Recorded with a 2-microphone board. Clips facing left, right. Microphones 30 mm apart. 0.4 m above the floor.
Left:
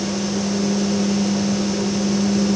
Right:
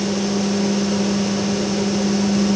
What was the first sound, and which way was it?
Only background noise.